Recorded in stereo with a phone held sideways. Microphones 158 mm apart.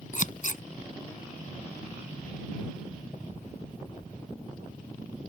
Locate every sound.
0.1 s scissors: 55° left (ahead or behind)